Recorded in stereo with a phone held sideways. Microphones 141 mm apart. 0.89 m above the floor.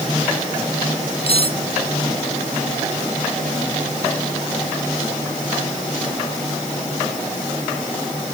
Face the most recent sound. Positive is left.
turn(degrees=45)  # may be behind; listen again after turning